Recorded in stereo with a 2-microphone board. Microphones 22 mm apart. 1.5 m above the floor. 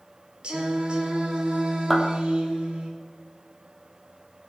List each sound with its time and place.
0.4 s singing: 50° right (ahead or behind), 4 m
1.9 s a clap: 5° left (ahead or behind), 3 m